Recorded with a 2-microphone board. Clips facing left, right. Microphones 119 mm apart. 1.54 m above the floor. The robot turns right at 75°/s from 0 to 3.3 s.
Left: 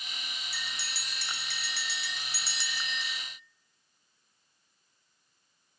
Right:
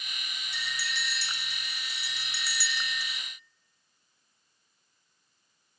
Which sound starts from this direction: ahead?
A bell, at 0.5 s.